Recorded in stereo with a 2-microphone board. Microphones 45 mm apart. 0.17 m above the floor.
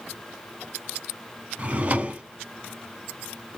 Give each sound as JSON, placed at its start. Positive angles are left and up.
{"t": 1.6, "sound": "a drawer", "side_deg": -35, "distance_m": 0.6}